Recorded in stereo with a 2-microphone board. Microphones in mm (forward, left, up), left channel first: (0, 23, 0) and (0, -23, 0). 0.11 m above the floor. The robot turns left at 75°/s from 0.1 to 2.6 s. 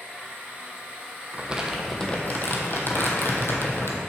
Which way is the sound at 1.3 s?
145° right.